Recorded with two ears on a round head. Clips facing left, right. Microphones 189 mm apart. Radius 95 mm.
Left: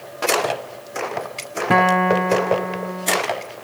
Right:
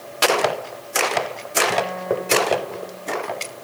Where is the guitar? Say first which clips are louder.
Left 10 dB; 85° left.